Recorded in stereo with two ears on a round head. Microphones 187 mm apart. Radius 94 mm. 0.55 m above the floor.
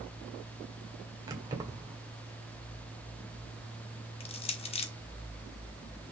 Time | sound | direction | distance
1.3 | keys jangling | 20° right (ahead or behind) | 1.5 m
4.2 | crushing | 30° left (ahead or behind) | 0.9 m